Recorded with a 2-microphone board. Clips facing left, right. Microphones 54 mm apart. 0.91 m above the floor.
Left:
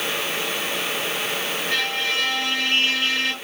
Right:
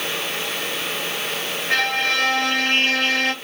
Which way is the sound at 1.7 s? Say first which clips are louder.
Right 6 dB; 50° right (ahead or behind).